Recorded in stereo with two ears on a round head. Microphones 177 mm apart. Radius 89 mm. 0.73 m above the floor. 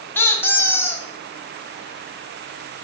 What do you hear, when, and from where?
0.1 s a squeak: 10° left (ahead or behind), 0.5 m